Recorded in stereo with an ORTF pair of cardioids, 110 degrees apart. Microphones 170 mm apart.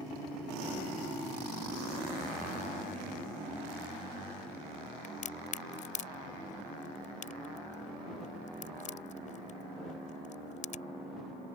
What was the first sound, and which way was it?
A crack, 45° left.